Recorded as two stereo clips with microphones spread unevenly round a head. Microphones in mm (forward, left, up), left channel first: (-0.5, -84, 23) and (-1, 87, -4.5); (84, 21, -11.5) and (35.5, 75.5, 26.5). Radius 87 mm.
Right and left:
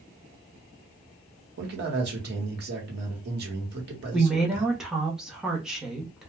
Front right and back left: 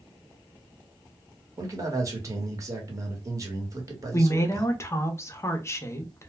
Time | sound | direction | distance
1.6 | a man speaking | 75° left | 1.3 m
4.1 | a woman speaking | 5° left | 0.8 m